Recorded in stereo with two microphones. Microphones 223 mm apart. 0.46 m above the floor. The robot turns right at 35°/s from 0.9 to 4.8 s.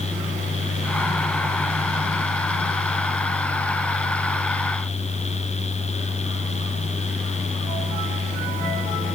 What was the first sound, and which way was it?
Only background noise.